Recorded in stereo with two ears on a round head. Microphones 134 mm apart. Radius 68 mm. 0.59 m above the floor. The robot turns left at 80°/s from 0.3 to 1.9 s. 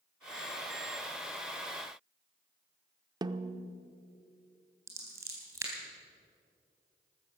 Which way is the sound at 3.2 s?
30° right (ahead or behind).